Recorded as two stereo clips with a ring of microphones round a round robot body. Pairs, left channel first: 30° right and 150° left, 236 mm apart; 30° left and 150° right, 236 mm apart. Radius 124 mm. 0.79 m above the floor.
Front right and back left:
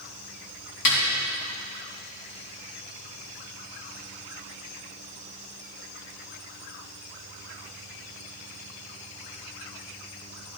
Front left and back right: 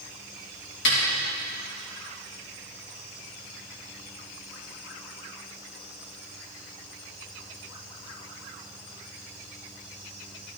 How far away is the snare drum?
About 2.5 m.